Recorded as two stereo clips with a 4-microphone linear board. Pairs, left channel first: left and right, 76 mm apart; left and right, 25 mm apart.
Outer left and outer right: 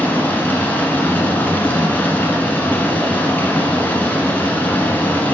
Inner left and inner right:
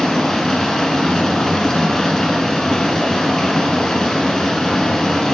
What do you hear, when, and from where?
0.0 s running water: 25° left (ahead or behind), 1.3 m